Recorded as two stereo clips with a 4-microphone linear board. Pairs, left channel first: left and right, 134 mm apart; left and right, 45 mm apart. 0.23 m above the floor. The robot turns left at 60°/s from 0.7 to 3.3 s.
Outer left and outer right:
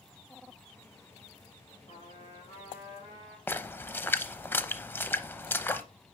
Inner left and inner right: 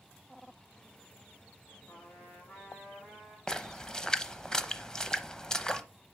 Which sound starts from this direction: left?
A trumpet, at 1.9 s.